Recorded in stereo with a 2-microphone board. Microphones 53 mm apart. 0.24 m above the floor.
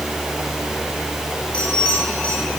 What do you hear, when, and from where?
1.5 s a bell: 25° left (ahead or behind), 8.5 m